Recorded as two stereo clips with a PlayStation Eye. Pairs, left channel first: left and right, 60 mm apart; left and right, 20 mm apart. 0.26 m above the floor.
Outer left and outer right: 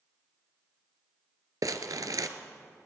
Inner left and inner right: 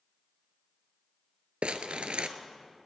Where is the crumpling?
80° right, 0.7 m.